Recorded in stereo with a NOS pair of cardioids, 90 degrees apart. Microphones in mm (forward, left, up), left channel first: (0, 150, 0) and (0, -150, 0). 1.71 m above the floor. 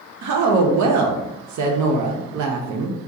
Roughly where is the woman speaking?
Ahead right.